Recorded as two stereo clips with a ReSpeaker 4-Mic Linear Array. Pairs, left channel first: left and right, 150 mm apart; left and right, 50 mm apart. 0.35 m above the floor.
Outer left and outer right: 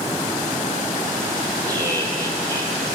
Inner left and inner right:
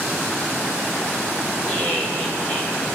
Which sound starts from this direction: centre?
Laughter, at 1.6 s.